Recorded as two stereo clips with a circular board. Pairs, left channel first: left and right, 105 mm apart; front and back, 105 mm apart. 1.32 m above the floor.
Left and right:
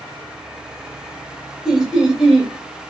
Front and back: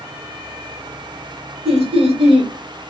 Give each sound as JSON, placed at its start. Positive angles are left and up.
{"t": 1.6, "sound": "laughter", "azimuth_deg": -175, "distance_m": 0.8}